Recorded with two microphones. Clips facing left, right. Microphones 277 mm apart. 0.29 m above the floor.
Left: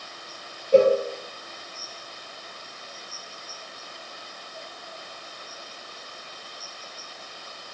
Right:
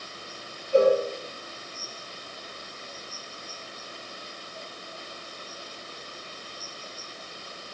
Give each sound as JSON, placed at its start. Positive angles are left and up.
{"t": 0.7, "sound": "a cowbell", "side_deg": 80, "distance_m": 3.5}